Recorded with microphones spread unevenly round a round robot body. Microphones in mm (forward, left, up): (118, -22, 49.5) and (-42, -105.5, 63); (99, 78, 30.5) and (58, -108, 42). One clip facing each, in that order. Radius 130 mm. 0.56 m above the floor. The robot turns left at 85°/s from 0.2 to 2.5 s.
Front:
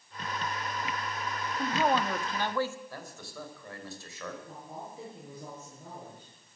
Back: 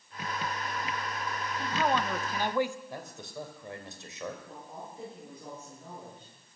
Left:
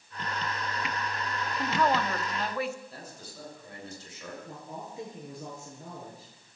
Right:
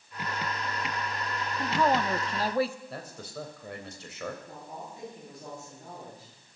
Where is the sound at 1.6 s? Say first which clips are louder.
Front 2 dB, right 1 dB; 10° right, 0.9 m; by 2.8 s 85° right, 0.9 m.